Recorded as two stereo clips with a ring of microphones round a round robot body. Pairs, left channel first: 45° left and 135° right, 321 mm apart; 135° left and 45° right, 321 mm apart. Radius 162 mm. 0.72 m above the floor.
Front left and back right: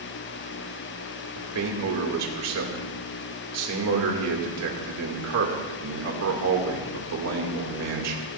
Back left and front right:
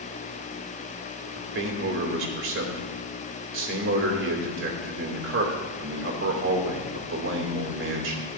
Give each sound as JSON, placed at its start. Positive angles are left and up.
{"t": 1.4, "sound": "a man speaking", "azimuth_deg": -95, "distance_m": 2.5}